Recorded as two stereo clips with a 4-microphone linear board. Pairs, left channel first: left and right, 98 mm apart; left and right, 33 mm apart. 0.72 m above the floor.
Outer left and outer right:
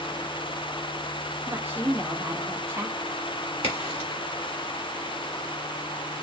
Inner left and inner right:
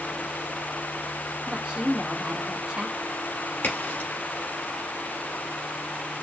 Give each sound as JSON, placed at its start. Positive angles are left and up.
{"t": 1.5, "sound": "a woman speaking", "side_deg": -25, "distance_m": 0.9}
{"t": 3.6, "sound": "a crack", "side_deg": 80, "distance_m": 3.0}